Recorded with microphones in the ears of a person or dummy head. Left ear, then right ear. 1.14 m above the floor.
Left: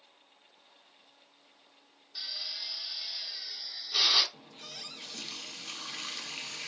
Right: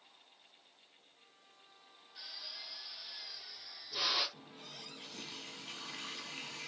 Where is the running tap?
25° left (ahead or behind), 1.3 m.